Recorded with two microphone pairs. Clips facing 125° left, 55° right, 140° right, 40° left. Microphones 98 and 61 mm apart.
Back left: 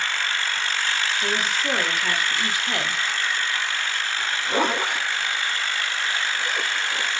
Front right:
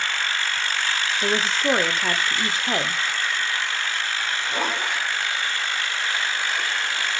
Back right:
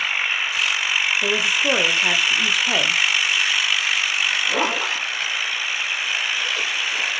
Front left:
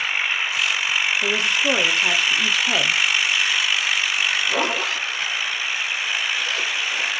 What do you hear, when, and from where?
1.2 s a woman speaking: 55° right, 1.3 m
4.2 s a zipper: 145° left, 4.5 m